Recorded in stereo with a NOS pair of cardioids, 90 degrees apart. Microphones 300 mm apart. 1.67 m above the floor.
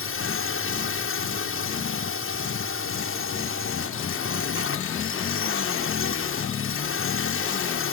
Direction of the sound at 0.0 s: 45° left.